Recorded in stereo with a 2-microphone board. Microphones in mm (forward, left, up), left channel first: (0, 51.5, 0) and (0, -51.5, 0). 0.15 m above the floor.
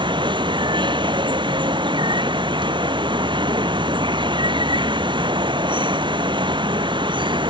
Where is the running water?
55° right (ahead or behind).